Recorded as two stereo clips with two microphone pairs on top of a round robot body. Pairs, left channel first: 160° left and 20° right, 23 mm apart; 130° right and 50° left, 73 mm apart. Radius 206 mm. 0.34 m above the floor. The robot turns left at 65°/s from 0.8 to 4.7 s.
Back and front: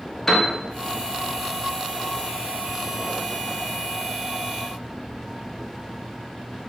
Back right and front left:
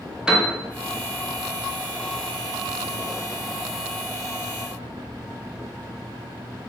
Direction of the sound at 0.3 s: 100° left.